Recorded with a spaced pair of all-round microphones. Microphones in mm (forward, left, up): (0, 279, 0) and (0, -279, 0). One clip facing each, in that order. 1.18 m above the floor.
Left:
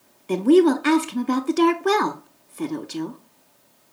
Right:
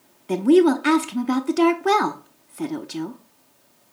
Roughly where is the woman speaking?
Centre.